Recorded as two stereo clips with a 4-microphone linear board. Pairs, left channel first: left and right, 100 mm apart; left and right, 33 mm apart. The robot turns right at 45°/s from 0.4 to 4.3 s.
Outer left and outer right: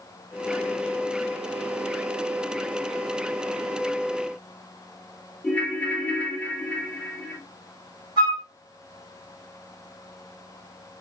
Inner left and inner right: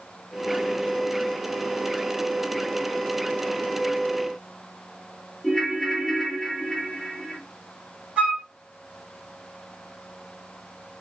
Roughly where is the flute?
Right.